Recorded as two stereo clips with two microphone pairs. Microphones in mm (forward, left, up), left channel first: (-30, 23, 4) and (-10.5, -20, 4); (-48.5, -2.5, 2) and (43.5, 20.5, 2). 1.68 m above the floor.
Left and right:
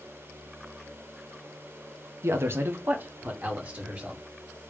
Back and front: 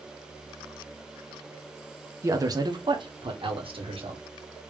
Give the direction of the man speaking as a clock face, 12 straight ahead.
1 o'clock.